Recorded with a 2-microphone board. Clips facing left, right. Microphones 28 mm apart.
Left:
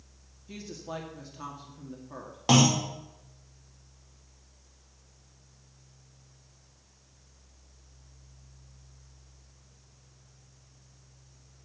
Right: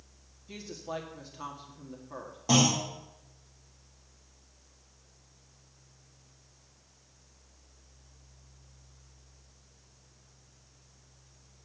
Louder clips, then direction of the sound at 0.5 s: Even; 5° right (ahead or behind).